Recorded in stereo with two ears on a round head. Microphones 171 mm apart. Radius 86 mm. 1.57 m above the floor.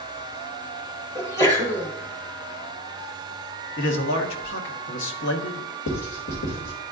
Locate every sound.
1.1 s a sneeze: 15° left (ahead or behind), 1.4 m
3.8 s a man speaking: 70° left (ahead or behind), 1.2 m
5.9 s writing: 75° left (ahead or behind), 2 m